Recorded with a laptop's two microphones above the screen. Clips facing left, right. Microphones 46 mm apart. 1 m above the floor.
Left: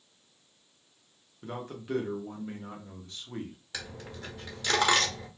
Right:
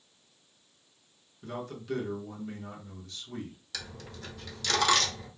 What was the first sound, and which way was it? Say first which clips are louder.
A man speaking: even; 25° left (ahead or behind).